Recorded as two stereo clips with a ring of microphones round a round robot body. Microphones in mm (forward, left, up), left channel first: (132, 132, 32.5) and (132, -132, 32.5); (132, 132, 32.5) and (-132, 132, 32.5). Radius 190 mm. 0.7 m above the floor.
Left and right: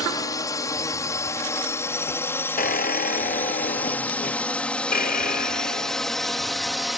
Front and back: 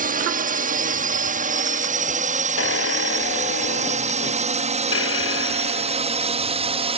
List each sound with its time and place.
0.0 s a drone: 160° left; by 7.0 s straight behind
2.6 s a squeak: 35° left